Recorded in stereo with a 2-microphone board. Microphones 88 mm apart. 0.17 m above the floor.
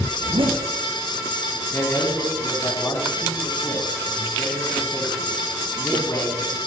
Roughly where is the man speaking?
Left.